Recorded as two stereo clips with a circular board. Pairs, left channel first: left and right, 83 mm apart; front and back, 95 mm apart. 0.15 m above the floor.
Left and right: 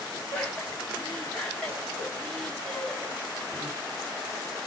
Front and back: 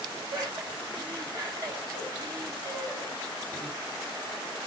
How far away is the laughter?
About 2.0 m.